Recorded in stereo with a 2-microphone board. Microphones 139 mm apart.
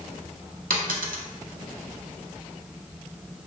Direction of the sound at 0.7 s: 80° right.